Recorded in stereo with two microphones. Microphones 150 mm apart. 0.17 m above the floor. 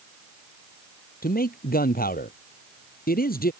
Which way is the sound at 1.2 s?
65° left (ahead or behind).